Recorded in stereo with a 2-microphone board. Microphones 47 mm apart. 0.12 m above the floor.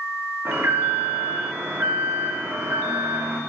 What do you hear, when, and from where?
0.5 s an alarm: 60° right (ahead or behind), 9 m